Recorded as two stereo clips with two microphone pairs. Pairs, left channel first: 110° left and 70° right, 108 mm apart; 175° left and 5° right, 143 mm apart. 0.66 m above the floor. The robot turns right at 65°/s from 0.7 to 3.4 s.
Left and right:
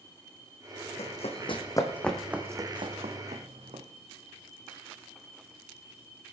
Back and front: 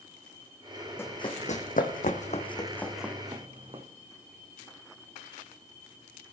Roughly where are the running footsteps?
Left.